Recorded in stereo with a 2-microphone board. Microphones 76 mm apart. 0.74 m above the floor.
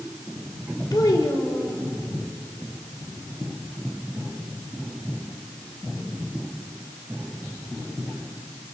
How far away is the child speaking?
About 2 m.